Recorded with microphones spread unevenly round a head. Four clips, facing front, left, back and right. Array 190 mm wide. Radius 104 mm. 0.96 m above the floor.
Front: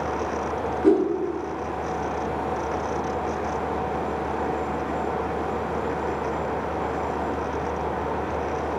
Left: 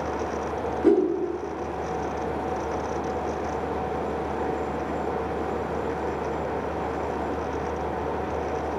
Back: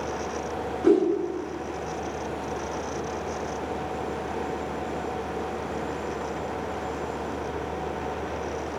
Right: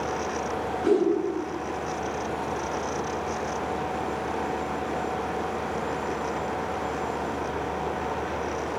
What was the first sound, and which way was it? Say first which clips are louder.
A whoosh: left 3 dB, front 1 dB; 130° left.